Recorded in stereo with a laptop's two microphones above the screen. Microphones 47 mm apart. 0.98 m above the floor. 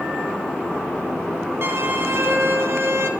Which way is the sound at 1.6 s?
60° right (ahead or behind).